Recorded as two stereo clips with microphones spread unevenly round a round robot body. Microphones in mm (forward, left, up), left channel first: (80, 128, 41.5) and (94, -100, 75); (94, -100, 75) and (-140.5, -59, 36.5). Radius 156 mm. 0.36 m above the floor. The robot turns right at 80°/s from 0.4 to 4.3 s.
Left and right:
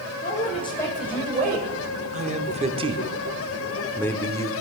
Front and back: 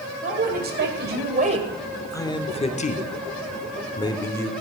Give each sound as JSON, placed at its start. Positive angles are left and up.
{"t": 0.2, "sound": "a man speaking", "azimuth_deg": 130, "distance_m": 2.0}
{"t": 2.1, "sound": "a man speaking", "azimuth_deg": -95, "distance_m": 0.9}